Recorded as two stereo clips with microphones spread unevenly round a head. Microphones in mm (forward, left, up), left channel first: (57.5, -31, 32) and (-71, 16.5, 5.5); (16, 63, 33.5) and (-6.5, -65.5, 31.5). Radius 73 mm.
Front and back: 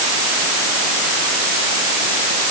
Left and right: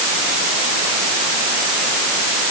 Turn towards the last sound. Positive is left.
No sound to turn to.